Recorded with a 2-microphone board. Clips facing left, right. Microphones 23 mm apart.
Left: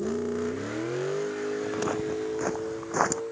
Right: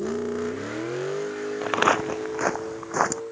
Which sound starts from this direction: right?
Footsteps, at 1.6 s.